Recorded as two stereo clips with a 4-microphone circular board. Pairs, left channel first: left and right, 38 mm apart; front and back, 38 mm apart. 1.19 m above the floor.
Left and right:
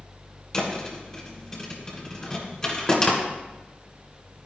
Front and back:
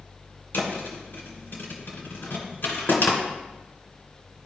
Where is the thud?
15° left, 2 m.